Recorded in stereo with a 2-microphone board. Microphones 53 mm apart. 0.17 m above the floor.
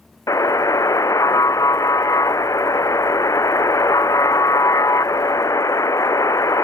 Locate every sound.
0.3 s a buzzer: 75° left (ahead or behind)